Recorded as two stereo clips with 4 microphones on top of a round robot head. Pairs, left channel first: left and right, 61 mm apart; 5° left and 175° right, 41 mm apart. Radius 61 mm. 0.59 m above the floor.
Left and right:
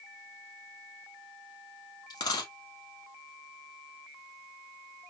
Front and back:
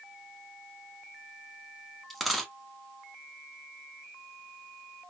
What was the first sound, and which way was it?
A dropped coin, 90° left.